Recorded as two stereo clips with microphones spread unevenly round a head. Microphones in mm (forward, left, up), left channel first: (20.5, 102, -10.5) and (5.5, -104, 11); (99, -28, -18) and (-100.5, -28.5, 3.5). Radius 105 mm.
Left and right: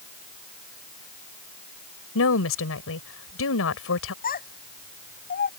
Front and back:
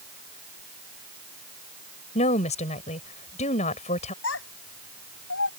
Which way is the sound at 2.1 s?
60° left.